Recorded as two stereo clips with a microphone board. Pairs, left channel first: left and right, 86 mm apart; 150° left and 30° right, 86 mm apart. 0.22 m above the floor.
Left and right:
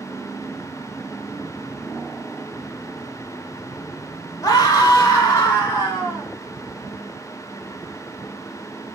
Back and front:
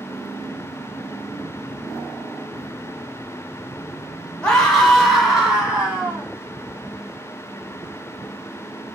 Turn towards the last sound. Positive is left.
turn(degrees=40)